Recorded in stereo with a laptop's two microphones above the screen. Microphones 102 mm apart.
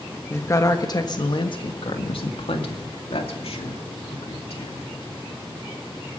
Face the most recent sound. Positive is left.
turn(degrees=75)  # may be behind; listen again after turning